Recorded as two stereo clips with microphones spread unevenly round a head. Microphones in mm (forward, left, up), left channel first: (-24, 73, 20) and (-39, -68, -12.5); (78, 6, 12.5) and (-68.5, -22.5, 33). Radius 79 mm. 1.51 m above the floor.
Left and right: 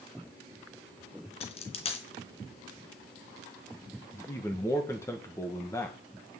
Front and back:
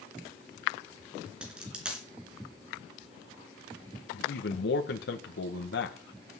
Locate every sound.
1.4 s a dropped coin: 110° left, 3 m
4.1 s a man speaking: 10° left, 1.6 m